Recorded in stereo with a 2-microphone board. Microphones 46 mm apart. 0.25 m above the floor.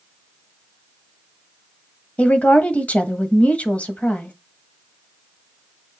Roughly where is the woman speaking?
Left.